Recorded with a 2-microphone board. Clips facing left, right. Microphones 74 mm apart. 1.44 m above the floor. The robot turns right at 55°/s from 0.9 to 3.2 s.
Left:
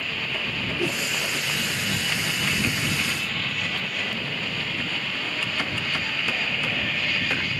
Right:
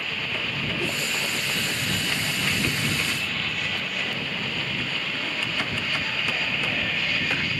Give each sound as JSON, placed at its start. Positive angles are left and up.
{"t": 0.8, "sound": "a whoosh", "side_deg": 15}